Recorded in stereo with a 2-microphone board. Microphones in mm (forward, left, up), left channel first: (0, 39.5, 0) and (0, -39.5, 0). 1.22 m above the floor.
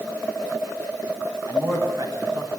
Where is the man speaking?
50° right (ahead or behind), 8.5 m.